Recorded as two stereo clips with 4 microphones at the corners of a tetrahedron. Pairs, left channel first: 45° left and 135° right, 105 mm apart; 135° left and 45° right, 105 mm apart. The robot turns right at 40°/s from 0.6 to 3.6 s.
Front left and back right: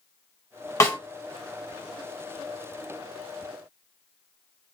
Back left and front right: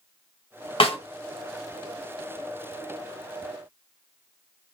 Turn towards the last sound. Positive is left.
turn(degrees=-140)